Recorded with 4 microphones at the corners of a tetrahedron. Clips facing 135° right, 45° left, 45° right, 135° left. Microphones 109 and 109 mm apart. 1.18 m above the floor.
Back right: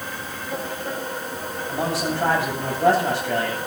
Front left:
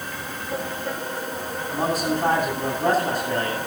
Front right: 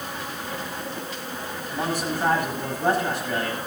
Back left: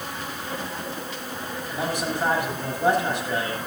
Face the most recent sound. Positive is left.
turn(degrees=-150)